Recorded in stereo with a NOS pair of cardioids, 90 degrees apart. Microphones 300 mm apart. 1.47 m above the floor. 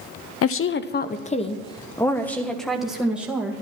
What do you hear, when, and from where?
0.4 s a woman speaking: 50° left, 0.8 m; by 3.6 s 5° right, 2 m